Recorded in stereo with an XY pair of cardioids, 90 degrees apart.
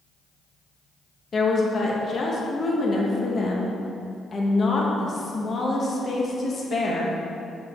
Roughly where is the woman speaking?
Ahead left.